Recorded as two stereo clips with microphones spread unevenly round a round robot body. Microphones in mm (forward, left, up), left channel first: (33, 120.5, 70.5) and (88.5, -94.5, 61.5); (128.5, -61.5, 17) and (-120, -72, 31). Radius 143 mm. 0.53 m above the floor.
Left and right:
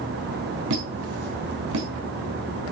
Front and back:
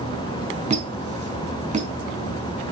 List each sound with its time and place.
0.7 s a squeak: 115° right, 4 m